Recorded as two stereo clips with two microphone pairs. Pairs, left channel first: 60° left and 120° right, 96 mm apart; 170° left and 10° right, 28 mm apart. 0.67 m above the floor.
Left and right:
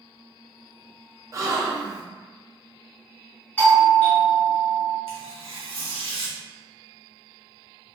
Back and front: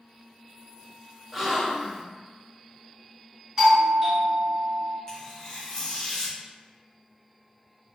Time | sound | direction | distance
1.3 | a gasp | 80° right | 0.5 m
3.6 | a doorbell | 15° left | 1.0 m
5.1 | tearing paper | 120° right | 0.7 m